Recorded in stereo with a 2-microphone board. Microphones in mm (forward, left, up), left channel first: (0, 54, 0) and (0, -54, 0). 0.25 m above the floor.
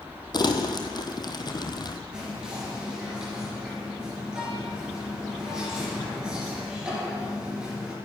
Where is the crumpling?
40° left (ahead or behind), 1.3 m.